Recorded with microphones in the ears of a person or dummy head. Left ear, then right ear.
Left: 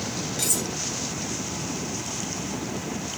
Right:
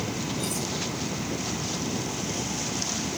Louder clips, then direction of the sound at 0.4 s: Left 8 dB; 35° left (ahead or behind).